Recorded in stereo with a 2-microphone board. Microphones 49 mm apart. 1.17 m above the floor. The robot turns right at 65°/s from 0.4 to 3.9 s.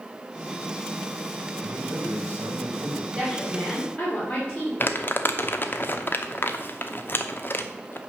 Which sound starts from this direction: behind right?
A man speaking, at 1.6 s.